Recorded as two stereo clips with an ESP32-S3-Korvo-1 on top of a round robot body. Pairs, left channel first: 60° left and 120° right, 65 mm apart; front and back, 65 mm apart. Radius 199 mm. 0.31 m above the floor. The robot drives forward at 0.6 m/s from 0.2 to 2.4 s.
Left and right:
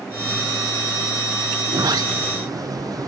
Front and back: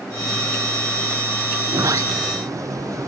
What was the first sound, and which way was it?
A sliding door, 145° right.